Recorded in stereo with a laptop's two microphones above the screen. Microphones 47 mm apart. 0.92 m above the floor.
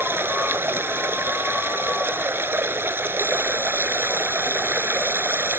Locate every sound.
0.0 s running water: 55° right (ahead or behind)